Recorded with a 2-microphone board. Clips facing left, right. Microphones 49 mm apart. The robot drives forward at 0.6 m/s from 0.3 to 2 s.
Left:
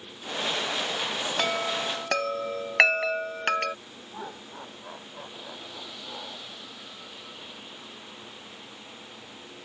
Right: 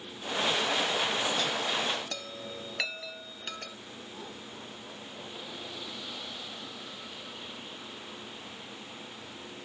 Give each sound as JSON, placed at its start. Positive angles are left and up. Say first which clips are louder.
{"t": 1.4, "sound": "a chime", "louder": "left 3 dB", "side_deg": 60}
{"t": 4.1, "sound": "laughter", "louder": "left 8 dB", "side_deg": 45}